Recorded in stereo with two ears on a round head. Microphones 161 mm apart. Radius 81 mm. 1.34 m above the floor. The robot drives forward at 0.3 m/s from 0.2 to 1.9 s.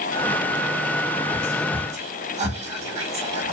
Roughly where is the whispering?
Right.